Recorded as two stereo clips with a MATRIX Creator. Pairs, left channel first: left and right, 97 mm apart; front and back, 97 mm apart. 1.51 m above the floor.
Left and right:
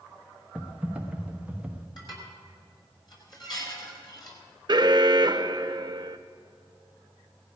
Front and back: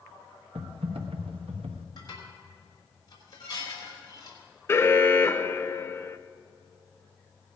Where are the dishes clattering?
50° left, 4 m.